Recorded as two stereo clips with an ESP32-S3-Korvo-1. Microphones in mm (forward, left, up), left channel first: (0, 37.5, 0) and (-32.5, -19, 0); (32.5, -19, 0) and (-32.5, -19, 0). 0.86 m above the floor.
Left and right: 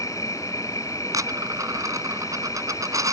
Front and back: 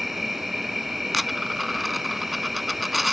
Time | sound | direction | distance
0.0 | an insect | 90° left | ?
1.1 | a dropped coin | 90° right | ?